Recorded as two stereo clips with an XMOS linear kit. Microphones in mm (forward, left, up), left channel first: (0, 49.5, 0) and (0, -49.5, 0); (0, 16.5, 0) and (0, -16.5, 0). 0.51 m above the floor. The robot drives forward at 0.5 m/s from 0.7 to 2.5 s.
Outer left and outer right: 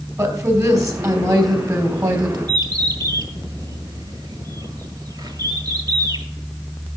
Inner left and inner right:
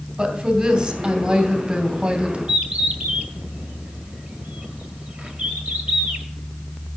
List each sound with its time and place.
0.2 s a woman speaking: 35° right (ahead or behind), 3 m; by 2.4 s 45° right (ahead or behind), 2.5 m
2.5 s a bird: 45° right (ahead or behind), 1.8 m